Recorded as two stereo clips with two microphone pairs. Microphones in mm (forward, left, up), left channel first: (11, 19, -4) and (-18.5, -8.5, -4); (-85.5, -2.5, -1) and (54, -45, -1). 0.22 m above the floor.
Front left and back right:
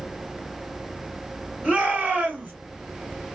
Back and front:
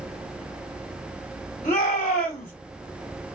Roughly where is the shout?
Behind.